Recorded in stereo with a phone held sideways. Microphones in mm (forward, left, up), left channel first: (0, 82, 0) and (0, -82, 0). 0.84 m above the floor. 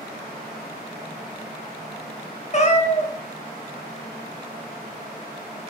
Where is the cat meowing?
45° left (ahead or behind), 0.5 m.